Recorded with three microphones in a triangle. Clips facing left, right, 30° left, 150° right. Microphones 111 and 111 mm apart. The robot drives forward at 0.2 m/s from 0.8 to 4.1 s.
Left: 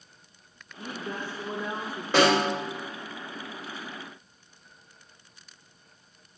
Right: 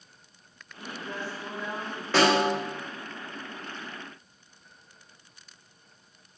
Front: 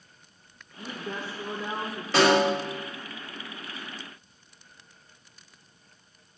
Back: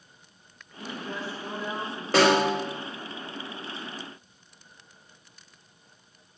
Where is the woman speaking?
70° left, 0.9 m; by 2.0 s 90° left, 0.8 m.